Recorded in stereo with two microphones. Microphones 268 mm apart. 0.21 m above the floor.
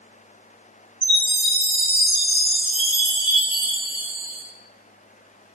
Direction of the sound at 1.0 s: 10° right (ahead or behind).